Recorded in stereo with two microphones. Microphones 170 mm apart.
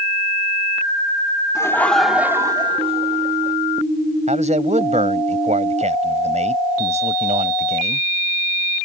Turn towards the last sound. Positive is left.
turn(degrees=-45)  # may be behind; listen again after turning